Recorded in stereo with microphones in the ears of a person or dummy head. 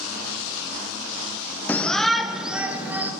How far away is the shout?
About 0.6 m.